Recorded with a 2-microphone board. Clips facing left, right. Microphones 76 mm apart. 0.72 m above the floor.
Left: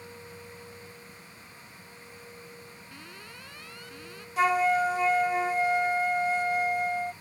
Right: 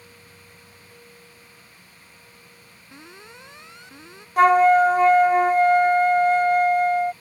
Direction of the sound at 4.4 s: 45° right (ahead or behind).